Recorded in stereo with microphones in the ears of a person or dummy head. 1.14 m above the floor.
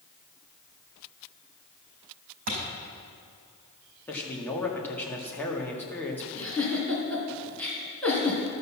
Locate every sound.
2.5 s a thud: 45° right (ahead or behind), 4.5 m
4.1 s a man speaking: 15° left (ahead or behind), 1.8 m
6.3 s a giggle: 15° left (ahead or behind), 3 m